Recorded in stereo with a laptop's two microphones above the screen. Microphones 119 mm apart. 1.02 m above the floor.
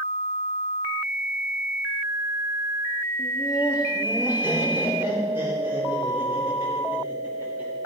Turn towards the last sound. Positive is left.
turn(degrees=-20)  # may be behind; listen again after turning